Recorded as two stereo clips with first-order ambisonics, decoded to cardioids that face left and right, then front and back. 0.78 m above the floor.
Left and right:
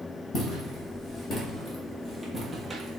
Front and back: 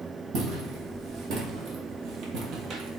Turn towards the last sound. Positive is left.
turn(degrees=-160)